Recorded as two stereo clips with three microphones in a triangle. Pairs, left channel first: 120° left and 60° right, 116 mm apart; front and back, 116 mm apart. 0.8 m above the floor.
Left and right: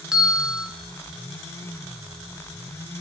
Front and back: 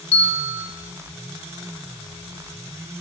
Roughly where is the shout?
I don't hear a shout.